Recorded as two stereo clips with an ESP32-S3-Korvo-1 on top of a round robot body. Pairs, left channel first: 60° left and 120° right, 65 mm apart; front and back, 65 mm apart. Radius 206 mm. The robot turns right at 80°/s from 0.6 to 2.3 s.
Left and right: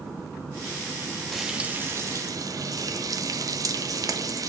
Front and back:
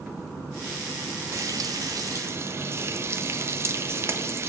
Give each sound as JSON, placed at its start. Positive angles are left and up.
{"t": 1.3, "sound": "frying", "azimuth_deg": 145, "distance_m": 1.4}